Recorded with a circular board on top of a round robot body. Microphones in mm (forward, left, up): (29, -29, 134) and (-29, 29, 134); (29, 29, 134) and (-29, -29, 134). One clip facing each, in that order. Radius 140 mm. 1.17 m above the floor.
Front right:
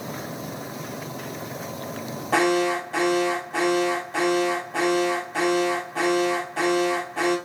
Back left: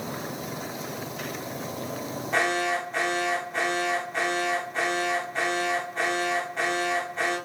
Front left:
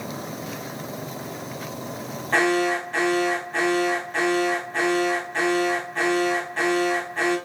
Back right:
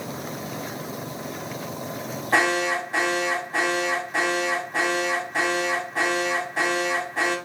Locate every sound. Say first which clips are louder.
2.3 s an alarm: front right 5 dB, front left 1 dB; 55° right, 5.5 m